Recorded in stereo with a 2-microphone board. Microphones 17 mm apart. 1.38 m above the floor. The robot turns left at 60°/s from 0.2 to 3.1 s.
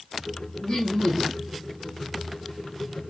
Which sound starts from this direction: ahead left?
Laughter, at 0.6 s.